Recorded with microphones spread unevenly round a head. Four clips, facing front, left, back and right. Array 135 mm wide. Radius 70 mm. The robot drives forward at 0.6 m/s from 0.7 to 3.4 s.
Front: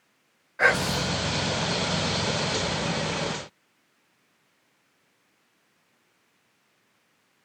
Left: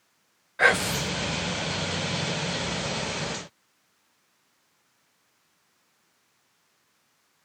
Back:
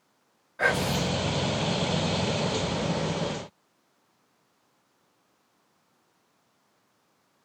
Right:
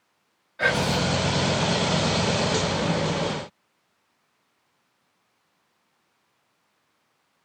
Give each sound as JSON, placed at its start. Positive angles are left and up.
{"t": 0.6, "sound": "whispering", "azimuth_deg": 60, "distance_m": 0.7}